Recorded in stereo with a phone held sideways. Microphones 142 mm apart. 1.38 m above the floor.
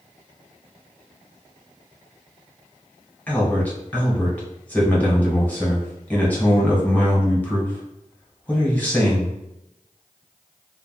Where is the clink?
I don't hear a clink.